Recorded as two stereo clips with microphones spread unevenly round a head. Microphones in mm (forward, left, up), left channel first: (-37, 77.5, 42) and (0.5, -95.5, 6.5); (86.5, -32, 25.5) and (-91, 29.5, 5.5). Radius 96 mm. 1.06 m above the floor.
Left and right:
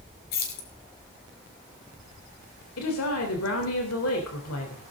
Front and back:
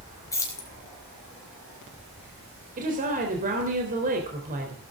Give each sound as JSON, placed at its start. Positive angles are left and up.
{"t": 0.3, "sound": "keys jangling", "azimuth_deg": 55, "distance_m": 4.5}
{"t": 2.8, "sound": "a woman speaking", "azimuth_deg": 110, "distance_m": 3.5}